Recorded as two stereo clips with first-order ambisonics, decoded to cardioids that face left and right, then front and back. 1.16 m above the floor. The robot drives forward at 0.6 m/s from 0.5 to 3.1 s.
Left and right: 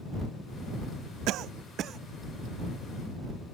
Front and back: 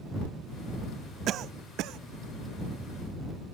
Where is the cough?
130° right; by 2.0 s 145° right.